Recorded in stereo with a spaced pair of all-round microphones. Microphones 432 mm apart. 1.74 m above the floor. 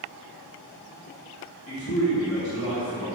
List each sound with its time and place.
1.7 s a man speaking: 35° left (ahead or behind), 4 m; by 3.0 s 50° left (ahead or behind), 5 m